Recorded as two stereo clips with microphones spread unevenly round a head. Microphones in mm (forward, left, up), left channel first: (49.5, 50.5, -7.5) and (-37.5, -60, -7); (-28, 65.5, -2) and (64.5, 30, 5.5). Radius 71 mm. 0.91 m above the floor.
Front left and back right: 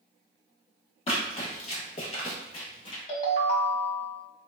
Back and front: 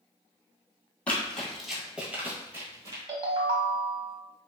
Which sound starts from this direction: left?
Running footsteps, at 1.1 s.